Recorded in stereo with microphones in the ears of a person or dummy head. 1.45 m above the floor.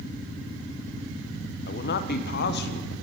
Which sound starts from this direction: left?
A man speaking, at 1.7 s.